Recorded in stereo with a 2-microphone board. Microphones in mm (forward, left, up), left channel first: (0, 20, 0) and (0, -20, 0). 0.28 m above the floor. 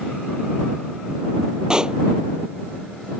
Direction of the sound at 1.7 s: 20° right (ahead or behind).